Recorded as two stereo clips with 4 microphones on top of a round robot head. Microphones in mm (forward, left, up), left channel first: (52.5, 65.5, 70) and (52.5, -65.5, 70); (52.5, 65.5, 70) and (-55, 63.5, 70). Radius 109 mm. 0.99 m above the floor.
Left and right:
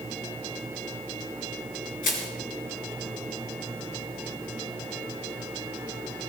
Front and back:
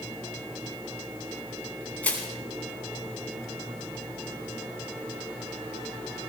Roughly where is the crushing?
Left.